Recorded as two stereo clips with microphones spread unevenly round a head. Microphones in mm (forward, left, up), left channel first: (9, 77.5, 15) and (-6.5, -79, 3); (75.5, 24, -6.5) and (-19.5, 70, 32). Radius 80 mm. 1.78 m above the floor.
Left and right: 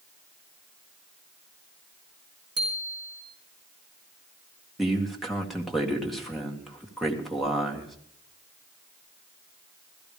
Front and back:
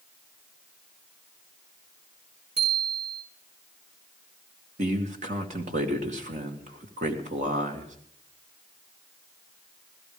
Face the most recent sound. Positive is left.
turn(degrees=175)